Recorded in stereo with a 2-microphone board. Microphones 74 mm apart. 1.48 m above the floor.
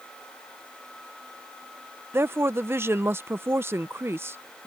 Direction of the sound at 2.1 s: 35° right (ahead or behind).